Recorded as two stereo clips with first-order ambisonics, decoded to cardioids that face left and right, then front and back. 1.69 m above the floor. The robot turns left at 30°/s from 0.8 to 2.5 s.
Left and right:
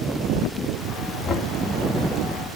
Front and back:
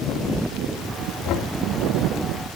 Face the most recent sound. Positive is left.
turn(degrees=5)